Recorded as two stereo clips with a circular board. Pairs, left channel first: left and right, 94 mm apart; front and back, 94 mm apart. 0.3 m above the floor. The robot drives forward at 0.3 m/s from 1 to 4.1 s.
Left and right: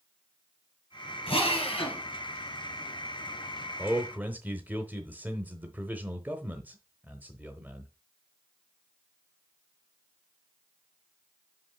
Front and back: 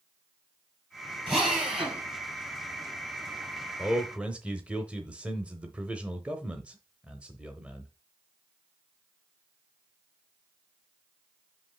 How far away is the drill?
About 3 m.